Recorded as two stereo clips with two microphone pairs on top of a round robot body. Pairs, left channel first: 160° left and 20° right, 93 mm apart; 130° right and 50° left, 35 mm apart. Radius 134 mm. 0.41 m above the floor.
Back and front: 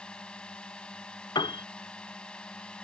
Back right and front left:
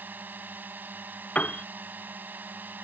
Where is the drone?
80° left.